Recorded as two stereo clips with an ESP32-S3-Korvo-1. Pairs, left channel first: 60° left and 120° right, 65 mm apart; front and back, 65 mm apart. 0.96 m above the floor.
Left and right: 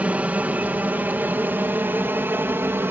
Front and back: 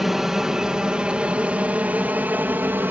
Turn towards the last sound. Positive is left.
turn(degrees=-145)